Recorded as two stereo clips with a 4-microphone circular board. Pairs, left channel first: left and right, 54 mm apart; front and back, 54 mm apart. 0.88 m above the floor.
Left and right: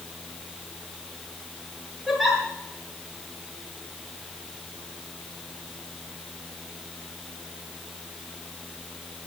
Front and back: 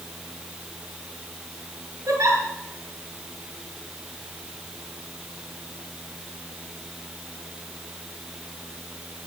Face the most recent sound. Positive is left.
turn(degrees=-175)